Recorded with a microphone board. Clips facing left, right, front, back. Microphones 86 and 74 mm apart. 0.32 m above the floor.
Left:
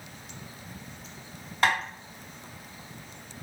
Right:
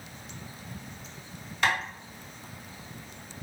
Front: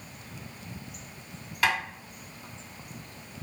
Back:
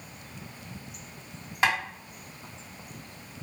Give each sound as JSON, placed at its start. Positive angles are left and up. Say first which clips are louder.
{"t": 1.6, "sound": "tapping", "louder": "left 2 dB, back 1 dB", "azimuth_deg": 125, "distance_m": 2.5}